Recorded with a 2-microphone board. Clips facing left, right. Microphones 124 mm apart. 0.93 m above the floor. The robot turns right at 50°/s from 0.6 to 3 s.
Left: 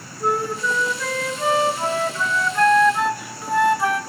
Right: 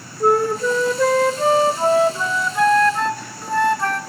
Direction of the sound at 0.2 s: 110° right.